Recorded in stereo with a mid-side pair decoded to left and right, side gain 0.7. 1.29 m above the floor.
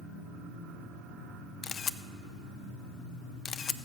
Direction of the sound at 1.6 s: 35° left.